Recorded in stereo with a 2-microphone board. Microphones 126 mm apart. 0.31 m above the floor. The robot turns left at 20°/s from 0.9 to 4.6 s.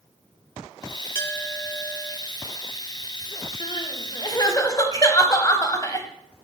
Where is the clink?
20° left (ahead or behind), 0.6 m.